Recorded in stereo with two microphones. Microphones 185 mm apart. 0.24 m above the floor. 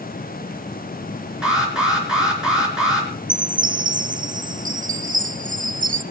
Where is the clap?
No clap in this recording.